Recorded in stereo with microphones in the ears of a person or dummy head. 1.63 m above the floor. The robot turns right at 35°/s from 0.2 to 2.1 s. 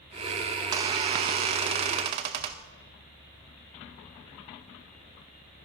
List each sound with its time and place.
0.6 s a squeak: 15° right (ahead or behind), 0.6 m; by 2.7 s 30° right (ahead or behind), 0.6 m